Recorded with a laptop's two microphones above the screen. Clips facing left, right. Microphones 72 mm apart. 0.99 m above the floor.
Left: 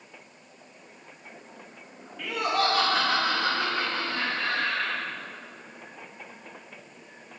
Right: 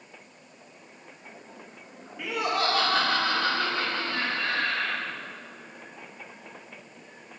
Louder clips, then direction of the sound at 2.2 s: Left 1 dB; 15° right (ahead or behind).